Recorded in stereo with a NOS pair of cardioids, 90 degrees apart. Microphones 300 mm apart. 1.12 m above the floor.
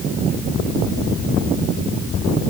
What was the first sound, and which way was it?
Only background noise.